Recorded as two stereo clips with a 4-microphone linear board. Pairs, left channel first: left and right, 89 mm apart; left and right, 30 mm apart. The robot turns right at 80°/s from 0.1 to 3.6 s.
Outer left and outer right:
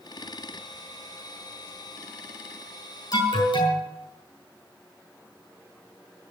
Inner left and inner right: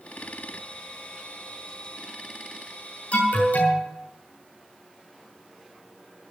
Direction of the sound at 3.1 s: 45° left.